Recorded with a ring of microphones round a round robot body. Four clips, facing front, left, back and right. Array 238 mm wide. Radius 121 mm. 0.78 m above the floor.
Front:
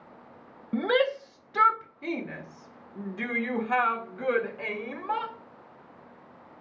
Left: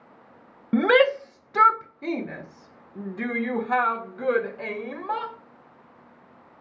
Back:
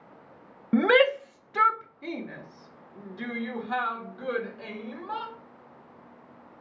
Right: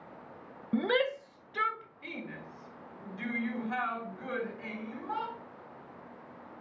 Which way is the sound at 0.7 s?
130° left.